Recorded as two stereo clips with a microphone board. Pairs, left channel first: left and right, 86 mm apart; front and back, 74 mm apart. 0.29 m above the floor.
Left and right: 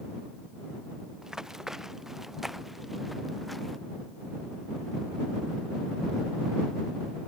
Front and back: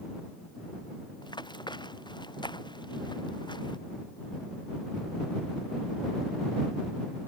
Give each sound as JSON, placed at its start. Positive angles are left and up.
{"t": 1.2, "sound": "running footsteps", "azimuth_deg": -5}